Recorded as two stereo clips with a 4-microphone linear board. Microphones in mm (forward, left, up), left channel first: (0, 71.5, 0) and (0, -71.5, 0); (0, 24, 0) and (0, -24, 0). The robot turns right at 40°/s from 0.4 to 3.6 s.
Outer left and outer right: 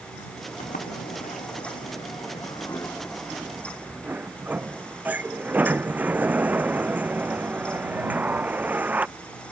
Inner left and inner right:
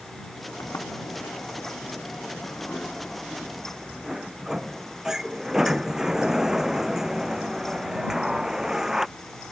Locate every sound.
0.6 s a sliding door: 70° left; by 9.1 s 170° right